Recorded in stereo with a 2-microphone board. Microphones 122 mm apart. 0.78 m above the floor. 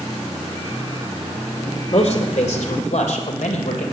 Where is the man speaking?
65° left (ahead or behind), 2 m; by 3.8 s 80° left, 3 m.